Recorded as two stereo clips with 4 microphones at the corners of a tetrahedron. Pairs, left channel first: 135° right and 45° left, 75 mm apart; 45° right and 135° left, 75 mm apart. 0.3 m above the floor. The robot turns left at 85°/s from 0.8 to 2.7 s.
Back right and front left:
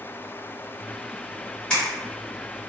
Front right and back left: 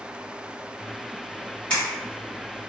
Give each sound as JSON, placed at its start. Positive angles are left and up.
{"t": 1.7, "sound": "a camera shutter", "azimuth_deg": -80, "distance_m": 1.5}